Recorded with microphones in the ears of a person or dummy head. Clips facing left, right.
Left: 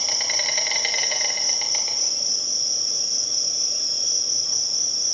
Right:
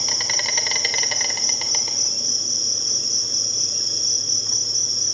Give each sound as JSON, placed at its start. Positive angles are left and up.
{"t": 0.0, "sound": "an insect", "side_deg": -60, "distance_m": 1.2}